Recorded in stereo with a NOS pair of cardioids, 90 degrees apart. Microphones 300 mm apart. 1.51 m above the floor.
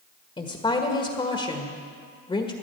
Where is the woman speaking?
20° left, 1.6 m.